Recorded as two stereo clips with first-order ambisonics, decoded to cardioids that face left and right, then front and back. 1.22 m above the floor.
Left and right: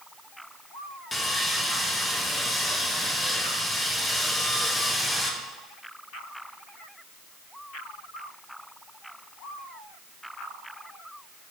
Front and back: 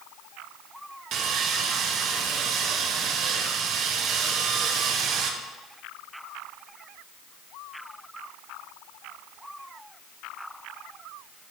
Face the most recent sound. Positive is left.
turn(degrees=170)